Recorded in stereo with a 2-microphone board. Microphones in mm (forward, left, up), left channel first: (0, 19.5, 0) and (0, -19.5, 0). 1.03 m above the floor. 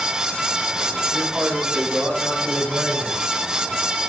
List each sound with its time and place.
1.1 s a man speaking: 25° right (ahead or behind), 5.5 m; by 3.2 s 50° right (ahead or behind), 4 m